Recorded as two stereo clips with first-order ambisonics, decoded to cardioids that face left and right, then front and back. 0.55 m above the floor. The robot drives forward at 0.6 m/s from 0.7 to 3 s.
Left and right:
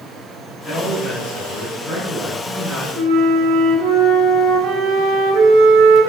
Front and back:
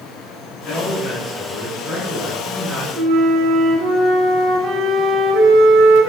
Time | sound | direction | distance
0.7 | a man speaking | 30° left | 1.6 m
3.0 | a flute | 135° right | 1.3 m